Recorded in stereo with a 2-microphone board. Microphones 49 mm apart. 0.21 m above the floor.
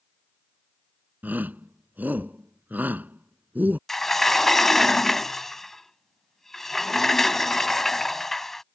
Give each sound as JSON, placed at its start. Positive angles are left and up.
{"t": 1.2, "sound": "a shout", "side_deg": -35}
{"t": 3.9, "sound": "a sliding door", "side_deg": 5}